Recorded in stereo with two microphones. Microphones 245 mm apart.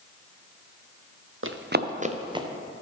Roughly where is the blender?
I don't hear a blender.